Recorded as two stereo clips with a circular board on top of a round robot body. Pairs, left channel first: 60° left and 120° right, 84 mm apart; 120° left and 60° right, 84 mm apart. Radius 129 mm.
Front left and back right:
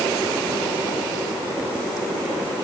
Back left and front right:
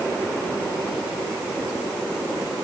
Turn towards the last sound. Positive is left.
No sound to turn to.